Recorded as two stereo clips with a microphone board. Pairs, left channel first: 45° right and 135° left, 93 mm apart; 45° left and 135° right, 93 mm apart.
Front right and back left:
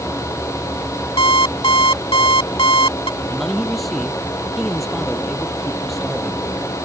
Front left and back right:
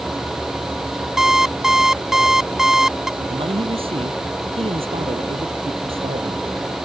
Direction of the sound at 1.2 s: 50° right.